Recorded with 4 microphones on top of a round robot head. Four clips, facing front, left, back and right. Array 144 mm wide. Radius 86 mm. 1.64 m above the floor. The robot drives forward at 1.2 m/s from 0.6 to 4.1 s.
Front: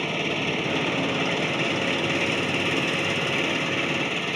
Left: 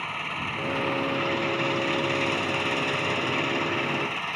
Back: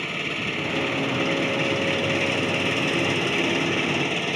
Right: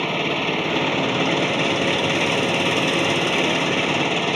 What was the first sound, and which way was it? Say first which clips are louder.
An engine running: right 10 dB, front 3 dB; 75° right.